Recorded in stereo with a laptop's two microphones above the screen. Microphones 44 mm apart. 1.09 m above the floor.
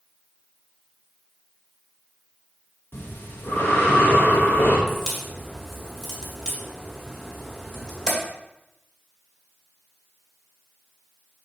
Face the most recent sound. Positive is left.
turn(degrees=20)  # may be behind; listen again after turning